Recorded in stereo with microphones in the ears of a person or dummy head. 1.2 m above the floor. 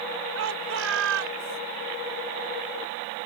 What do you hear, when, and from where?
0.3 s a shout: 80° right; by 1.6 s 75° right (ahead or behind)